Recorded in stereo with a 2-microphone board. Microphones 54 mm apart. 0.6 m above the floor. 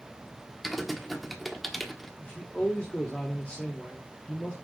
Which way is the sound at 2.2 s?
25° left (ahead or behind).